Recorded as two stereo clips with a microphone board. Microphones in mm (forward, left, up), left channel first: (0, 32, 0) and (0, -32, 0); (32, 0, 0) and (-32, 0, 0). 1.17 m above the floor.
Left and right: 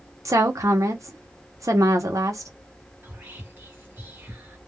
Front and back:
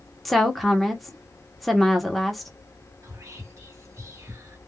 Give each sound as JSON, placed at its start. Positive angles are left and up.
{"t": 0.2, "sound": "a woman speaking", "azimuth_deg": -90, "distance_m": 0.9}
{"t": 3.0, "sound": "whispering", "azimuth_deg": -145, "distance_m": 1.4}